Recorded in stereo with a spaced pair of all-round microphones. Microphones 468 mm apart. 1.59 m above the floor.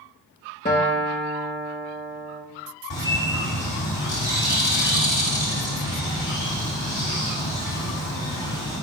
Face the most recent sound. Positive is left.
turn(degrees=75)  # may be behind; listen again after turning